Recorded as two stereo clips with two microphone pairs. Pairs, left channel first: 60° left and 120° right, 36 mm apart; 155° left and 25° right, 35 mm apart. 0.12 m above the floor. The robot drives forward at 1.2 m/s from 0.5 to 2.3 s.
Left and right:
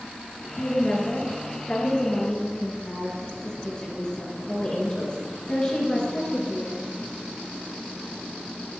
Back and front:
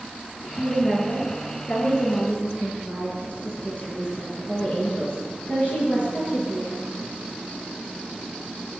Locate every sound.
0.6 s a woman speaking: 60° left, 2.5 m; by 6.8 s 125° left, 2.5 m